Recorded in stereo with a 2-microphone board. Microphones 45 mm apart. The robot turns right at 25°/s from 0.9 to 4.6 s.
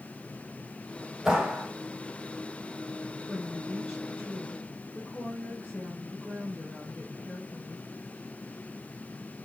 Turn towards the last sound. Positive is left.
turn(degrees=45)